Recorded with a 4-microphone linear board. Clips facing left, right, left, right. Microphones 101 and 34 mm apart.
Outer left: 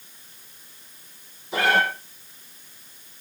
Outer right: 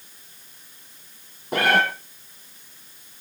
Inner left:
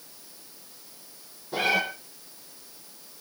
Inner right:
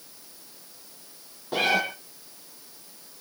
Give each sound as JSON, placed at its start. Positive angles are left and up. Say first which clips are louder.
{"t": 1.5, "sound": "a cat meowing", "louder": "outer right 1 dB, inner right 1 dB", "side_deg": -60, "distance_m": 5.5}